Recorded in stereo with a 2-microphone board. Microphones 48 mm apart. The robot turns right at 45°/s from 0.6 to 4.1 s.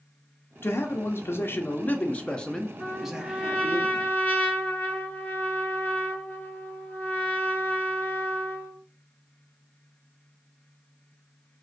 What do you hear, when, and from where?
0.6 s a man speaking: 80° left, 0.6 m; by 3.8 s 140° right, 0.6 m
2.8 s a trumpet: 20° right, 0.8 m; by 8.8 s 40° left, 0.8 m